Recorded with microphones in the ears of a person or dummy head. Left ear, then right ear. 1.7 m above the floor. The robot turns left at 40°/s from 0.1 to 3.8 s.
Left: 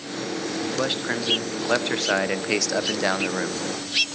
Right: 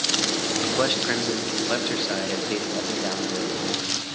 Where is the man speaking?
160° right, 1.1 m; by 3.6 s 80° left, 1.1 m.